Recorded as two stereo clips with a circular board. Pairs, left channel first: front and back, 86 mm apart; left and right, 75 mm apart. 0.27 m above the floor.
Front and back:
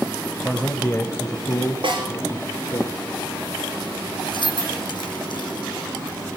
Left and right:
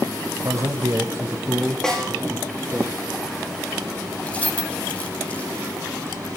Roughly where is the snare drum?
Behind.